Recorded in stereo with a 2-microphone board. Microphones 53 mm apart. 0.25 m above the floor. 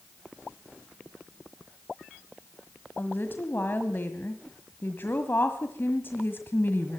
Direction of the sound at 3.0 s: 45° left (ahead or behind).